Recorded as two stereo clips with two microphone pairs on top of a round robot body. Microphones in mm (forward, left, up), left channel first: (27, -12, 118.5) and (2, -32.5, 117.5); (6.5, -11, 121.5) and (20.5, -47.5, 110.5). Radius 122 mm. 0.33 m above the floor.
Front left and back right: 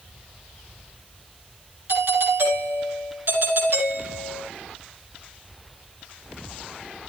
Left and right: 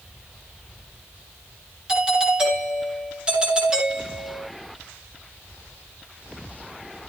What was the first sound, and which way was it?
A doorbell, 135° right.